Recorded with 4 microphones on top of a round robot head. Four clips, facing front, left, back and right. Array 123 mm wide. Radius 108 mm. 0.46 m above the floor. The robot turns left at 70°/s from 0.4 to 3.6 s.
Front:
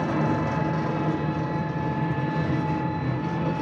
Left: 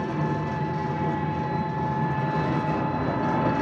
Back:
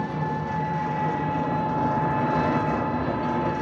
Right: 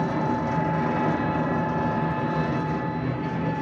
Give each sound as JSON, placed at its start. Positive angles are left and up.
{"t": 0.0, "sound": "an engine running", "azimuth_deg": -40, "distance_m": 0.7}